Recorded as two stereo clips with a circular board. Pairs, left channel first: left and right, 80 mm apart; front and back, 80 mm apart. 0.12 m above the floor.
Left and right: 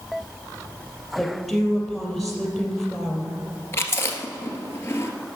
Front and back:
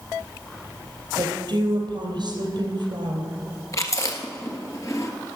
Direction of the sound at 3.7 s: 40° left.